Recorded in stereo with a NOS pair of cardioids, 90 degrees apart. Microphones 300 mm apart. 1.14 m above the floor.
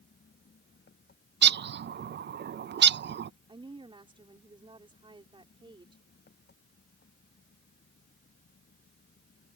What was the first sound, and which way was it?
An engine running, 35° left.